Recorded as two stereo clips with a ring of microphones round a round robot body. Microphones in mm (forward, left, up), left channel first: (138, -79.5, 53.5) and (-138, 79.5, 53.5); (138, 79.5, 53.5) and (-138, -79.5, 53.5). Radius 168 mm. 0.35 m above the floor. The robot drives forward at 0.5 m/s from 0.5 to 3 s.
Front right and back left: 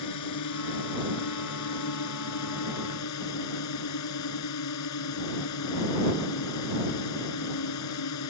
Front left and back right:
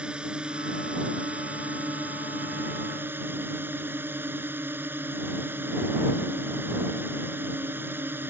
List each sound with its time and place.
0.0 s a drone: 65° right